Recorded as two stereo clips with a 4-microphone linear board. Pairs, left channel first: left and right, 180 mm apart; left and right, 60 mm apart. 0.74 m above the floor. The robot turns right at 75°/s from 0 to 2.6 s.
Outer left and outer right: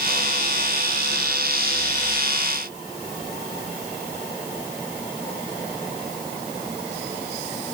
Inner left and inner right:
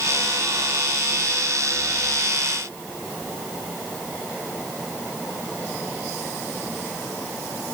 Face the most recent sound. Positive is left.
No sound to turn to.